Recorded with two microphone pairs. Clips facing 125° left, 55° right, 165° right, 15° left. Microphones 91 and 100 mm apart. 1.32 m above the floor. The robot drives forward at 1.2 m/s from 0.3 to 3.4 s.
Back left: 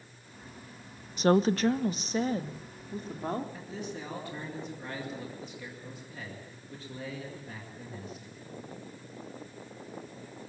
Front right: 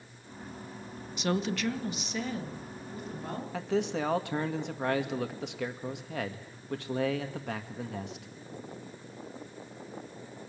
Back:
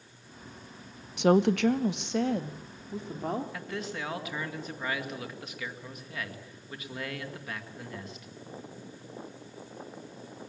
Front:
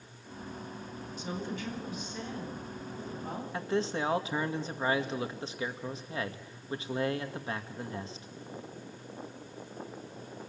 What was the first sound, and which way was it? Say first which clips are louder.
A woman speaking: back left 7 dB, back 16 dB; 175° left.